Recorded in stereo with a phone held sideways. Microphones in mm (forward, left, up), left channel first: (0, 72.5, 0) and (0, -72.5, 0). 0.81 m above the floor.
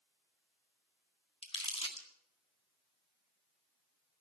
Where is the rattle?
I don't hear a rattle.